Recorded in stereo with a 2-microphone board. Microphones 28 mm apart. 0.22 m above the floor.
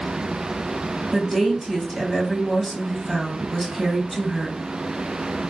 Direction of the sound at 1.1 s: 5° left (ahead or behind).